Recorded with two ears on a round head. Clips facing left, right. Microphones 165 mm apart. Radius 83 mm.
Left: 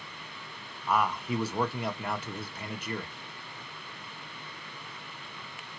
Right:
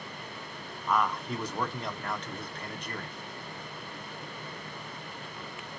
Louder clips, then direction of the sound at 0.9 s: Left 1 dB; 5° left (ahead or behind).